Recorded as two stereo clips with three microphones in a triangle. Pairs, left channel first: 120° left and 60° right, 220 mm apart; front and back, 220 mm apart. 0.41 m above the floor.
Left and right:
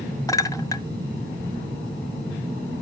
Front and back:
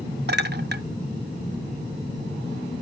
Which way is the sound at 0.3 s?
170° right.